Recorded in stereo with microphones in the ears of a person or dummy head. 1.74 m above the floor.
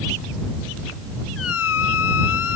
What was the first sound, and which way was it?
A squeak, 85° left.